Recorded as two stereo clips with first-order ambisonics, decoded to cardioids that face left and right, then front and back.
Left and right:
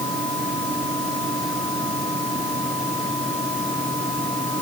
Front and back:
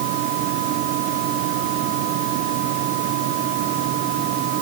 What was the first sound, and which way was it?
Only background noise.